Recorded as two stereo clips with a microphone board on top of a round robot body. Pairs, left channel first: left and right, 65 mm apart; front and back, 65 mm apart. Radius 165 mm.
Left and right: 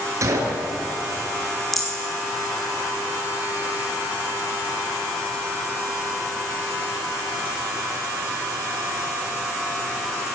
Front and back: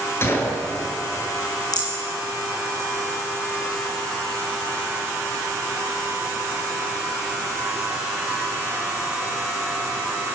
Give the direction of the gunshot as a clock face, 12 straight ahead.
2 o'clock.